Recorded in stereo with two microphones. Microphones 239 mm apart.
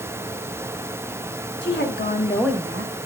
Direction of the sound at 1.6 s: 50° left (ahead or behind).